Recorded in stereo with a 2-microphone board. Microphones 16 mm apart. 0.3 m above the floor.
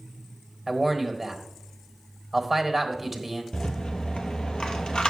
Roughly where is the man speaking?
Centre.